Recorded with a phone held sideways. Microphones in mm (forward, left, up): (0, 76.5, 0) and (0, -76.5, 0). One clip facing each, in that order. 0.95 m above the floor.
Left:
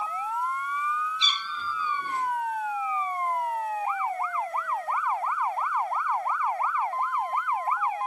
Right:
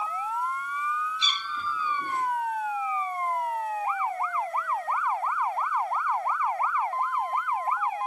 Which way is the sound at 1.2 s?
50° right (ahead or behind).